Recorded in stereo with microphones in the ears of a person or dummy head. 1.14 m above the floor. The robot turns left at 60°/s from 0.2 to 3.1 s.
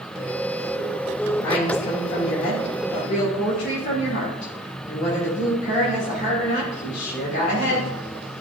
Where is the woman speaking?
165° left, 2.5 m; by 7.9 s 65° left, 2.5 m.